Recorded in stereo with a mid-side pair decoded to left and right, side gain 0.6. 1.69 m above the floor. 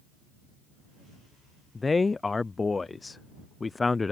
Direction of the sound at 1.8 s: 20° left.